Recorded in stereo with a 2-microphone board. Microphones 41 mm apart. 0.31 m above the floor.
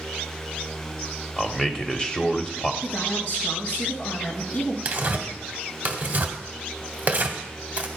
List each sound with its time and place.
1.4 s a man speaking: 20° left (ahead or behind), 0.9 m
2.8 s a woman speaking: 50° left (ahead or behind), 3.5 m
4.8 s tearing paper: 35° right (ahead or behind), 1.3 m